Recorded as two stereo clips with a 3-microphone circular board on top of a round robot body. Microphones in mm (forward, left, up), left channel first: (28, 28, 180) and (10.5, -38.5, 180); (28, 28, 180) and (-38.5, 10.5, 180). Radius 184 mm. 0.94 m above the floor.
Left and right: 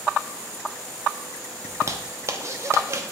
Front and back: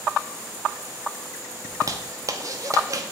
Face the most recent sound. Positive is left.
turn(degrees=-140)